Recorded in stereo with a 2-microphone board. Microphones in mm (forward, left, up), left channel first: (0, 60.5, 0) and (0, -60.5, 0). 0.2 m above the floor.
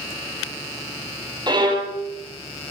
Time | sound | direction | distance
1.5 | a violin | 35° right (ahead or behind) | 3.5 m